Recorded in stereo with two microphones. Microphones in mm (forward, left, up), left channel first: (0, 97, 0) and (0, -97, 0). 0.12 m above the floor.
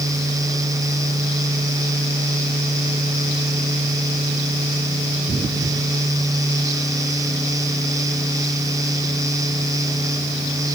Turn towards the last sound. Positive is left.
No sound to turn to.